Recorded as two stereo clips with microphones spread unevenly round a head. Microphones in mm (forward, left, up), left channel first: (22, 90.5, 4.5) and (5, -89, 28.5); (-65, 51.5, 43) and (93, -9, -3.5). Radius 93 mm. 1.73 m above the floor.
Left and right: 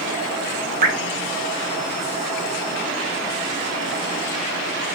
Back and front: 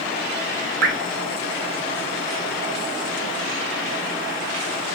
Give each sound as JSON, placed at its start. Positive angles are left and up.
{"t": 0.8, "sound": "dripping", "azimuth_deg": -50, "distance_m": 0.6}